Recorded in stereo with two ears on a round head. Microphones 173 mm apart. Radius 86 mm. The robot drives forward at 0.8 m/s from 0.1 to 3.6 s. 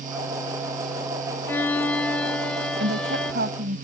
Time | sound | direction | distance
1.5 | a violin | 10° left (ahead or behind) | ?
2.8 | a woman speaking | 65° right (ahead or behind) | ?